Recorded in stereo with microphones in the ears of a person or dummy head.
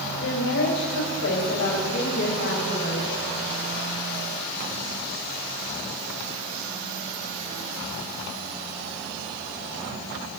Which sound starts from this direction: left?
A woman speaking, at 0.2 s.